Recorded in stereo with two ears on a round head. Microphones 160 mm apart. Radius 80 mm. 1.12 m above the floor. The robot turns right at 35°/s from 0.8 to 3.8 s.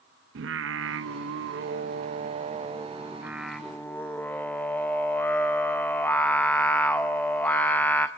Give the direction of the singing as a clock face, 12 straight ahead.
3 o'clock.